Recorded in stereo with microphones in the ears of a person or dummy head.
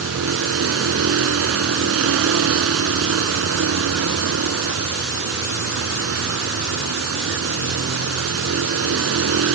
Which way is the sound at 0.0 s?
90° right.